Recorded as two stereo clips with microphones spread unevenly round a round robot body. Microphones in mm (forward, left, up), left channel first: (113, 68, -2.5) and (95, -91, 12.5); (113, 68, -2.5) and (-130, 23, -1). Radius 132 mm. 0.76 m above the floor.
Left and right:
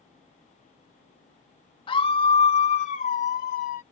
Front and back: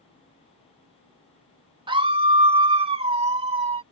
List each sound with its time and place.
1.9 s a scream: 125° left